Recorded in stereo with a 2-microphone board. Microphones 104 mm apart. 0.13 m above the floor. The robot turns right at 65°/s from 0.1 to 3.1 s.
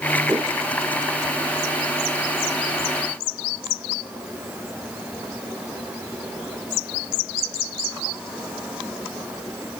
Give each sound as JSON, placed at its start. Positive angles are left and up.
{"t": 0.3, "sound": "a whoosh", "side_deg": -65, "distance_m": 1.4}